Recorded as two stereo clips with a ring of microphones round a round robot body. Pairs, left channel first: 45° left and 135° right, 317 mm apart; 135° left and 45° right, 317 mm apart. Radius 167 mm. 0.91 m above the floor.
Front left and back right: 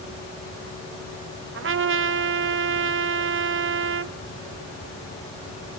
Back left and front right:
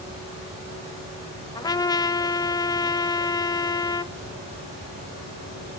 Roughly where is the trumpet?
Behind right.